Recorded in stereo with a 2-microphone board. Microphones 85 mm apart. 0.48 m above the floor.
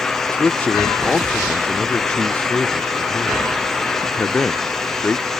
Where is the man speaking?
20° left (ahead or behind).